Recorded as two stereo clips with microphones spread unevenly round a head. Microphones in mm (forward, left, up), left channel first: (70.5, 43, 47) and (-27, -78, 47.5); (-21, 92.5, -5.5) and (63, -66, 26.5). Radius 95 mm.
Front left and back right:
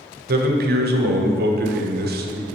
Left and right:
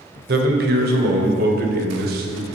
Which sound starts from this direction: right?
A man speaking, at 0.3 s.